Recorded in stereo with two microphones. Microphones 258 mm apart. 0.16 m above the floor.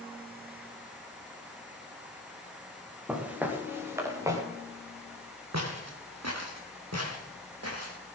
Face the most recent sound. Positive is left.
turn(degrees=-65)  # may be behind; listen again after turning